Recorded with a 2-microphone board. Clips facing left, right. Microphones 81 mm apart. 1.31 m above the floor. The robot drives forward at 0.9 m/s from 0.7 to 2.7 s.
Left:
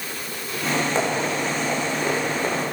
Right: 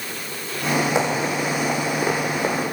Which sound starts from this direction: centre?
Running footsteps, at 0.9 s.